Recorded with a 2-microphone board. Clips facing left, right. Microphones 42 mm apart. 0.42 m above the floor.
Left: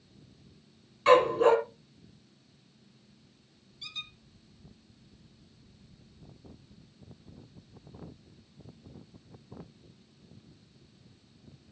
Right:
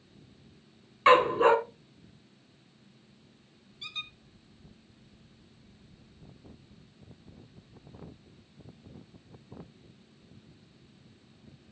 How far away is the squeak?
About 1.6 m.